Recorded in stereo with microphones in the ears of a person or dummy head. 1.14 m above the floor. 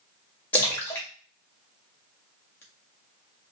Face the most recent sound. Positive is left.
turn(degrees=10)  # may be behind; listen again after turning